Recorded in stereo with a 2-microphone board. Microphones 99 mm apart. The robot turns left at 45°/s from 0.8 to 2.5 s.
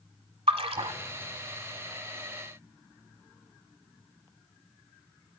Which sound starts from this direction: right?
A splash, at 0.5 s.